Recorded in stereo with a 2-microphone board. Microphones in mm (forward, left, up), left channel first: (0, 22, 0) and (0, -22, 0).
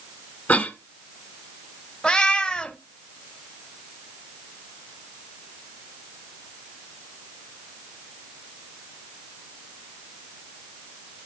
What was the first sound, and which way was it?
A cough, 40° left (ahead or behind).